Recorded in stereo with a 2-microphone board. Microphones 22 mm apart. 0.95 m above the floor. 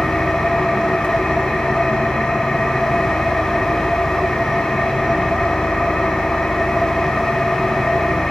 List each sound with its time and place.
0.0 s an engine running: 75° left (ahead or behind), 2.5 m